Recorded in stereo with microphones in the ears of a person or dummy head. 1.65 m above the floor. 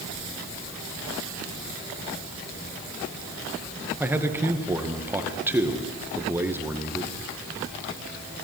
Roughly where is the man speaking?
Centre.